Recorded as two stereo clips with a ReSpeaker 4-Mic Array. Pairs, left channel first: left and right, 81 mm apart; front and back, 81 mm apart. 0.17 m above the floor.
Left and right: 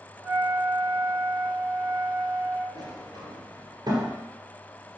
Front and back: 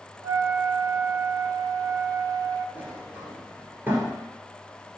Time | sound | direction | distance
0.2 | a flute | 145° right | 0.7 m
2.8 | a sliding door | 115° right | 2.5 m